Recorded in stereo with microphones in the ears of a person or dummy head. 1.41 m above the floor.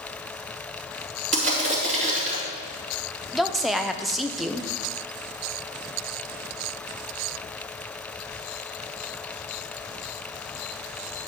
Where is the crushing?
40° right (ahead or behind), 3.5 m.